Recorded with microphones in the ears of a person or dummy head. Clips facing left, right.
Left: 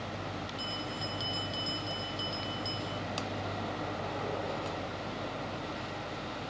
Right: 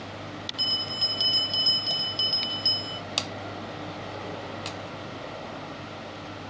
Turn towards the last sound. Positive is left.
turn(degrees=-40)  # may be behind; listen again after turning